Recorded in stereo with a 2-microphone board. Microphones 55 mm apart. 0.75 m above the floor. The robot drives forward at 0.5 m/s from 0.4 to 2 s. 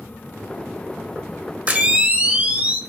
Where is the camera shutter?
30° right (ahead or behind), 0.5 m; by 2.8 s 25° right (ahead or behind), 0.6 m.